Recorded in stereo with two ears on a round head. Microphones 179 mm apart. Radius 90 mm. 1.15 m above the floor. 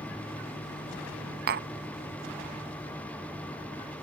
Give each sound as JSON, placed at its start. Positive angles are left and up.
{"t": 1.5, "sound": "tapping", "side_deg": -55}